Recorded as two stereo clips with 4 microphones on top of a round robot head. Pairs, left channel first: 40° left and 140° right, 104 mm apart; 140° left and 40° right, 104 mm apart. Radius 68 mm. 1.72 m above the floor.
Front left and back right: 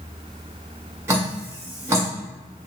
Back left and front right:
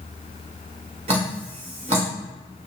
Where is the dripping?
75° right, 1.0 m.